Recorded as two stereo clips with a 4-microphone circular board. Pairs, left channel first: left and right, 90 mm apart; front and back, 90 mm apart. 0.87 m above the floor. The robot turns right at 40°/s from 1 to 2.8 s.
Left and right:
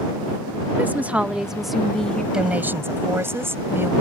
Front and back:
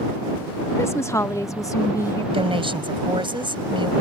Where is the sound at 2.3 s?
175° right; by 3.9 s 155° right.